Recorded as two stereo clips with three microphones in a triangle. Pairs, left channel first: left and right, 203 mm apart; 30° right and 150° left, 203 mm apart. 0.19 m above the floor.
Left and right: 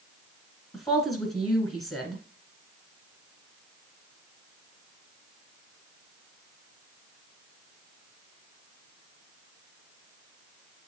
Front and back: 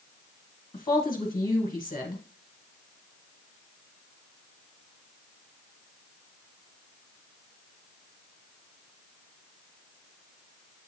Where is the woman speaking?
25° left, 1.4 m.